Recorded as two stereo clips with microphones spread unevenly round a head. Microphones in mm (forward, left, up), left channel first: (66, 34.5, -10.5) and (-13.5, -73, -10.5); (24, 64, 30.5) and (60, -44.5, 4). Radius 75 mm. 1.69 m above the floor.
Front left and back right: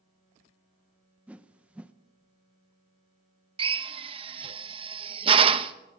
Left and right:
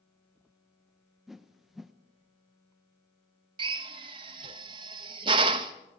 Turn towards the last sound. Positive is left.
turn(degrees=-125)